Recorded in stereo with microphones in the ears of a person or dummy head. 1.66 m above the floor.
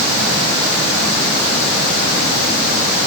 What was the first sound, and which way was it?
Only background noise.